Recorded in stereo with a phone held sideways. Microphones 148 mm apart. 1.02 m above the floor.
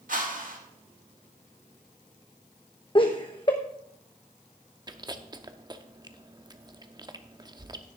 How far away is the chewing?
About 0.7 m.